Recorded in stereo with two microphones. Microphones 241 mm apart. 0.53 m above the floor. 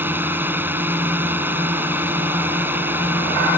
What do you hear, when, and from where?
0.0 s a drone: 10° right (ahead or behind)